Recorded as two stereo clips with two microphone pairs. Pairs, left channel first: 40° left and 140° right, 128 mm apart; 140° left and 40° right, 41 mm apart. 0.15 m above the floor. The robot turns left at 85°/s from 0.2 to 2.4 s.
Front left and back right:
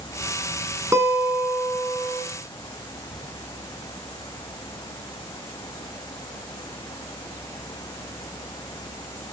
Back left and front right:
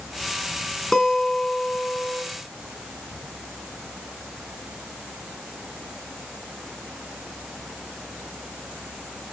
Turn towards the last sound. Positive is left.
turn(degrees=75)